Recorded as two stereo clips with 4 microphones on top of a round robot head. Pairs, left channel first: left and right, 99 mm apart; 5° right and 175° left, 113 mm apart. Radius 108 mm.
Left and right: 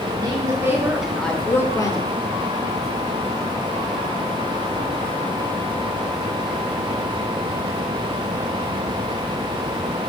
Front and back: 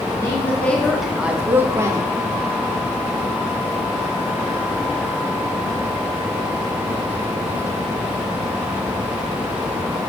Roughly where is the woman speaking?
Ahead right.